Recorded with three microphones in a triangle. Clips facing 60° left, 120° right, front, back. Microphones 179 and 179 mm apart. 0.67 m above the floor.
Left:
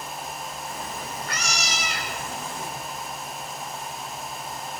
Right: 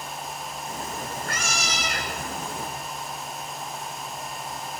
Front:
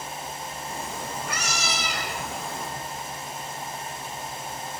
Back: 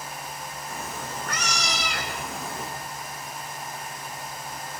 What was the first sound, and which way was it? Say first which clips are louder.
A cat meowing: right 4 dB, front 1 dB; 75° right.